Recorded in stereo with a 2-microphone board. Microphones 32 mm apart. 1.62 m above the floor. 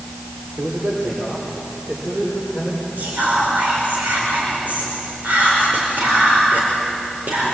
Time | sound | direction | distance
0.6 | a man speaking | 45° right (ahead or behind) | 5 m
3.0 | whispering | 70° right (ahead or behind) | 5.5 m